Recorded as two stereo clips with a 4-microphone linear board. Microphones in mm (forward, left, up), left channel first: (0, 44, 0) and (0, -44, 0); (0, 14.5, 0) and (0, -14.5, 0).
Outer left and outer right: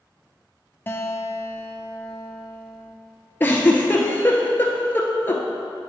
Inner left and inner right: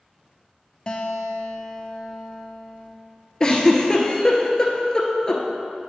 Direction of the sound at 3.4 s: 25° left (ahead or behind).